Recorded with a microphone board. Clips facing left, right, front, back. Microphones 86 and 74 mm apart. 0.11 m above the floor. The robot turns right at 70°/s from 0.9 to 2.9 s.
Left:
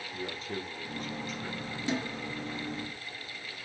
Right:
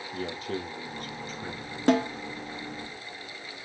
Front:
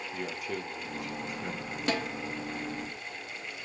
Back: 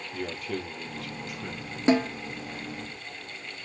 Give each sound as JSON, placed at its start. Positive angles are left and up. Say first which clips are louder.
{"t": 0.1, "sound": "a man speaking", "louder": "right 5 dB, back 4 dB", "azimuth_deg": -80, "distance_m": 2.5}
{"t": 1.9, "sound": "a snare drum", "louder": "right 11 dB, back 9 dB", "azimuth_deg": -115, "distance_m": 1.5}